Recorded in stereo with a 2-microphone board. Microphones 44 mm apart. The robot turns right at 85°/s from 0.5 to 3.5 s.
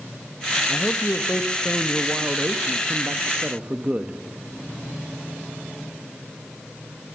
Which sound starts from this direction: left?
A man speaking, at 0.7 s.